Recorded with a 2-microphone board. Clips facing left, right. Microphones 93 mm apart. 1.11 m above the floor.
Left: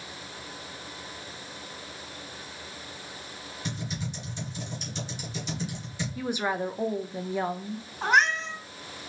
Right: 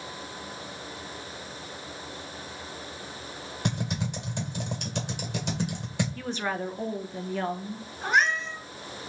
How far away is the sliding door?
I don't hear a sliding door.